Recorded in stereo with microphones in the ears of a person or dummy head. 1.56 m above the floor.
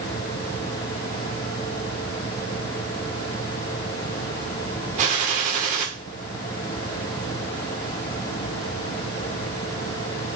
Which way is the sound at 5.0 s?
45° right (ahead or behind).